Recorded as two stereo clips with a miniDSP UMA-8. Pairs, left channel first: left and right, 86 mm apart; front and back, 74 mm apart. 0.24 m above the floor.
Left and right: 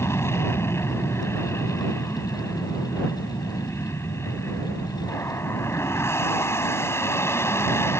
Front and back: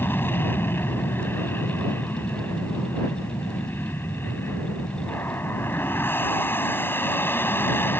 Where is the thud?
No thud in this recording.